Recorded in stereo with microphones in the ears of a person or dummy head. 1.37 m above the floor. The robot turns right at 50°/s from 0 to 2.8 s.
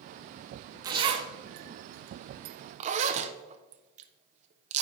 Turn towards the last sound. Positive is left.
turn(degrees=-45)  # may be behind; listen again after turning